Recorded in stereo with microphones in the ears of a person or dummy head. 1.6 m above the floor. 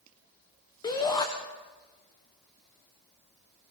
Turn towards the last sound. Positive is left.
turn(degrees=20)  # may be behind; listen again after turning